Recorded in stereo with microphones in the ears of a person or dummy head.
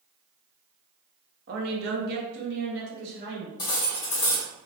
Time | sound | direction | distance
1.5 | a woman speaking | 55° right (ahead or behind) | 0.7 m
3.6 | cutlery clinking | 20° left (ahead or behind) | 1.0 m